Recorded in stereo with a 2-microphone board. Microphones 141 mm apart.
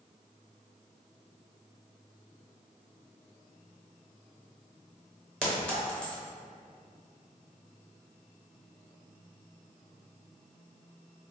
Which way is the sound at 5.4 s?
5° left (ahead or behind).